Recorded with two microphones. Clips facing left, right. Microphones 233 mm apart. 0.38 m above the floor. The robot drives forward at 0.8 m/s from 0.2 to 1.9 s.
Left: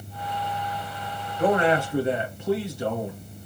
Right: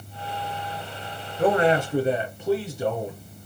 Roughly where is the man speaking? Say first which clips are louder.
Right 1 dB; right.